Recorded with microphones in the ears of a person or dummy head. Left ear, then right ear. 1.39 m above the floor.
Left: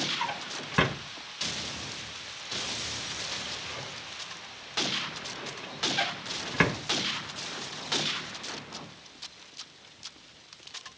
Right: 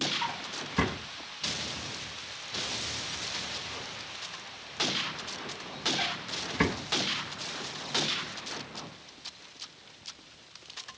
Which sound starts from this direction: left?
A drawer, at 0.2 s.